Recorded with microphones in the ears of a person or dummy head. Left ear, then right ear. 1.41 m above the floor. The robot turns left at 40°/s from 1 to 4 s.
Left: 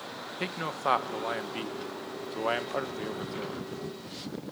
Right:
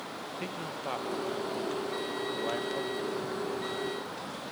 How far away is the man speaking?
About 0.9 m.